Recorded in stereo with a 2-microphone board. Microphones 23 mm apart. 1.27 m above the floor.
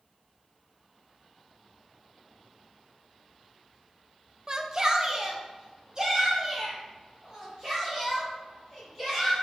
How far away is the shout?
About 0.5 m.